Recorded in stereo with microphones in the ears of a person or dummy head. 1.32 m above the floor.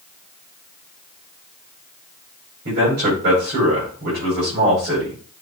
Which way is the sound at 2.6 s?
55° right (ahead or behind).